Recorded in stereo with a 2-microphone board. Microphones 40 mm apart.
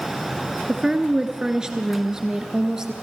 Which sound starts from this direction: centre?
A woman speaking, at 0.7 s.